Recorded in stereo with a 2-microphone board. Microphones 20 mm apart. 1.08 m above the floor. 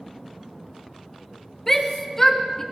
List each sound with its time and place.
1.7 s a shout: 20° left (ahead or behind), 1.2 m